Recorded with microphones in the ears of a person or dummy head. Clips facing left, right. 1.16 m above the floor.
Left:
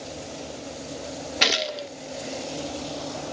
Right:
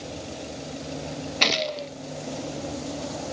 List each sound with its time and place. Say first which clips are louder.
1.4 s a gunshot: right 1 dB; 5° left (ahead or behind), 0.6 m